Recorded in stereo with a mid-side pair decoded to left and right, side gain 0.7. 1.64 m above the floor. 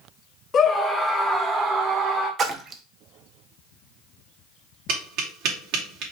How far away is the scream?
About 0.7 m.